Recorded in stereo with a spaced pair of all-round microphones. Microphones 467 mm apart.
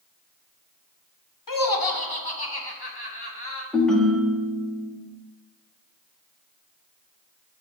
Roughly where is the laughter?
Left.